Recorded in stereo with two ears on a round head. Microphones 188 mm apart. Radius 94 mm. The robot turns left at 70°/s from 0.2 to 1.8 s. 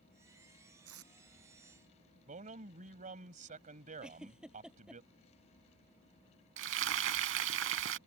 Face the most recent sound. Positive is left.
turn(degrees=-65)  # may be behind; listen again after turning